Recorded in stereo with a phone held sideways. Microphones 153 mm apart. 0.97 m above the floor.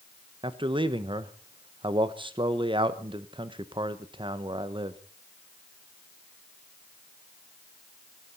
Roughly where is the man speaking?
Right.